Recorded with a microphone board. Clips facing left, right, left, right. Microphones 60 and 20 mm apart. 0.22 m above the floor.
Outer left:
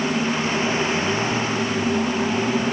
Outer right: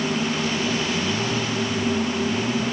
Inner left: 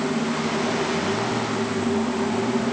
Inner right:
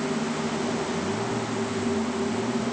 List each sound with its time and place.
Only background noise.